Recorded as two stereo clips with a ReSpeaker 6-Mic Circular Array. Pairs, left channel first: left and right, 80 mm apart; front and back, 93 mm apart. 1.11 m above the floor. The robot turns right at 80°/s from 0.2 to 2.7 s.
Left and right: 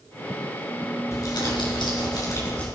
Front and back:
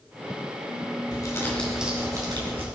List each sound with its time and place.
1.1 s crumpling: 40° left, 5 m; by 2.7 s 165° left, 5 m